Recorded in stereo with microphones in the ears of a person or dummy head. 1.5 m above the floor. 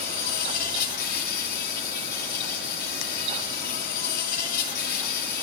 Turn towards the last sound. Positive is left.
turn(degrees=50)  # may be behind; listen again after turning